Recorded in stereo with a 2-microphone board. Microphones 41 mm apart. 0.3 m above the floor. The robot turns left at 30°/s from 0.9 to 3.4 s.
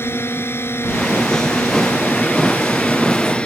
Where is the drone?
105° left; by 3.5 s 30° left.